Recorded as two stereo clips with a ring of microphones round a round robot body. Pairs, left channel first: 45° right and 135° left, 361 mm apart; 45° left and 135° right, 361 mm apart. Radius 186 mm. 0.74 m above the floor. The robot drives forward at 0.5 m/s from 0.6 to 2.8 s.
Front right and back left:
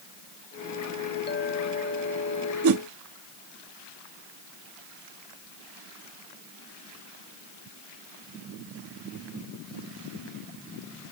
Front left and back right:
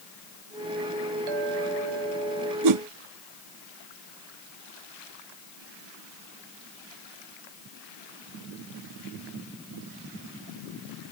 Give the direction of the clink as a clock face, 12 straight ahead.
4 o'clock.